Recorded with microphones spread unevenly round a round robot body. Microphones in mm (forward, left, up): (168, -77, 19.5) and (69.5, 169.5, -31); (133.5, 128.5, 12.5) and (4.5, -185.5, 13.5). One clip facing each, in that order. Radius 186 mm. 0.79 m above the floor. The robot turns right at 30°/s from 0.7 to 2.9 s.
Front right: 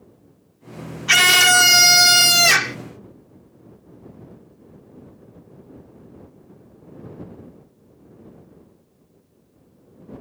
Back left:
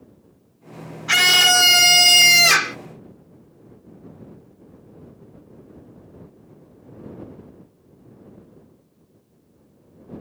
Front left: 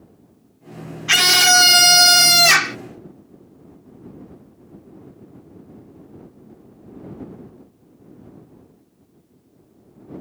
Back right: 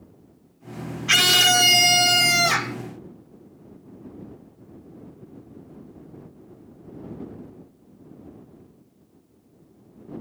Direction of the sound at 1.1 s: 15° right.